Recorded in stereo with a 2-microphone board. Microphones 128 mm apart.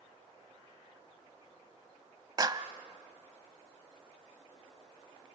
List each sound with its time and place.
2.4 s a clap: 35° right (ahead or behind), 0.9 m